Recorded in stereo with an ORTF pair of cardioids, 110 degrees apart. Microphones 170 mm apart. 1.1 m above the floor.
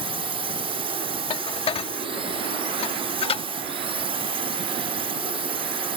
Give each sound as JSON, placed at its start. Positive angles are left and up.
{"t": 0.0, "sound": "a drone", "azimuth_deg": -35}
{"t": 1.3, "sound": "dishes clattering", "azimuth_deg": 35}